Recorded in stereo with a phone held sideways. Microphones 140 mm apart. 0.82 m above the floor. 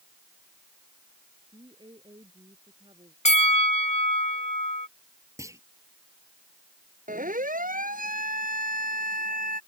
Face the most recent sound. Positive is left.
turn(degrees=-80)